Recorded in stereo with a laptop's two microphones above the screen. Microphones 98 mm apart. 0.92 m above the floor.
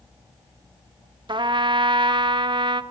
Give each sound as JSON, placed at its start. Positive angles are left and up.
{"t": 1.3, "sound": "a trumpet", "side_deg": -55, "distance_m": 0.6}